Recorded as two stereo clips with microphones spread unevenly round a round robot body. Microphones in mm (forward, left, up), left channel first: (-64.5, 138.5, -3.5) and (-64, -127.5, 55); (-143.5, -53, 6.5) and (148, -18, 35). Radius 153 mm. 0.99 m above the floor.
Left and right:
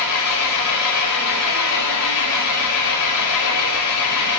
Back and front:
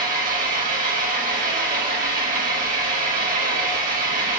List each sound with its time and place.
0.0 s an engine running: 75° left, 2 m